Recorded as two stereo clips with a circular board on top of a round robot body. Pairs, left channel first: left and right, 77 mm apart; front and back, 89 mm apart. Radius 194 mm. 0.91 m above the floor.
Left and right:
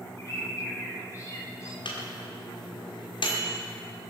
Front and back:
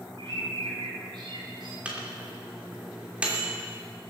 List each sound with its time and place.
0.2 s a bird: 145° left, 3.5 m
1.9 s a microwave: 100° left, 2.5 m